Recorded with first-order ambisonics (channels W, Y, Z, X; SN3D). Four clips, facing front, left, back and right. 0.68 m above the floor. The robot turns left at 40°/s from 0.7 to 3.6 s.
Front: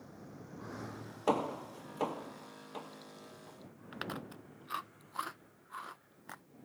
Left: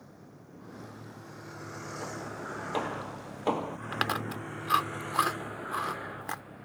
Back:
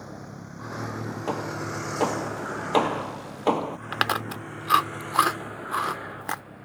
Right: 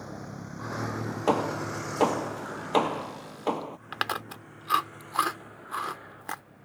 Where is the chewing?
175° right.